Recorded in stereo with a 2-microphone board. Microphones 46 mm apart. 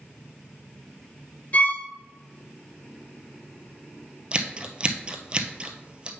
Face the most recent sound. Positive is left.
turn(degrees=-25)  # may be behind; listen again after turning